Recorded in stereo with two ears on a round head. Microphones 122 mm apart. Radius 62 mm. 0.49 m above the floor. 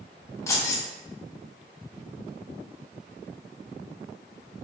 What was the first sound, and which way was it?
Keys jangling, 20° left (ahead or behind).